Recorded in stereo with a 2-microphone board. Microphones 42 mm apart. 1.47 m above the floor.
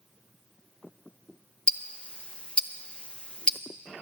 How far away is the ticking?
About 0.6 m.